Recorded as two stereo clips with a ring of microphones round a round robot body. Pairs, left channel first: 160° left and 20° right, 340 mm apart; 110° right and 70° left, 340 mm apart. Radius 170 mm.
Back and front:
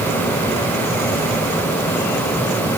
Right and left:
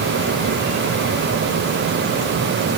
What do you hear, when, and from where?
Only background noise.